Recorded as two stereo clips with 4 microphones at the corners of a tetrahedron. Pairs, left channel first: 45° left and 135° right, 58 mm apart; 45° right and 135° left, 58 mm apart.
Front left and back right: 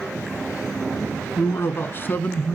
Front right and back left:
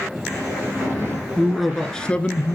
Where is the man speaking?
55° left, 1.5 m; by 2.6 s 10° right, 1.5 m.